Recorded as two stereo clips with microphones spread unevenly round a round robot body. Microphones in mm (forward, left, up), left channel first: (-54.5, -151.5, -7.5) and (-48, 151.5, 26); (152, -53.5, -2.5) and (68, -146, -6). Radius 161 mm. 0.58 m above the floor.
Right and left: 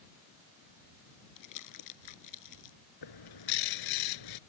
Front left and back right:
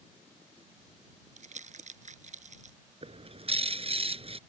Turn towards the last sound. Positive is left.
turn(degrees=-90)